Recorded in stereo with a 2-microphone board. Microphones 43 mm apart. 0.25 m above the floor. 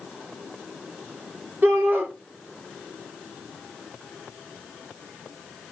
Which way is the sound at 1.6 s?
55° right (ahead or behind).